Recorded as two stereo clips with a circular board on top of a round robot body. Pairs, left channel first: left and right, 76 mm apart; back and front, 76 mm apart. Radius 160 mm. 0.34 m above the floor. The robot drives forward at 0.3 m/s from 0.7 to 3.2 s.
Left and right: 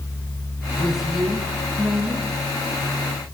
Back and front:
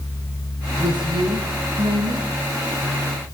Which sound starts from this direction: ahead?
A woman speaking, at 0.8 s.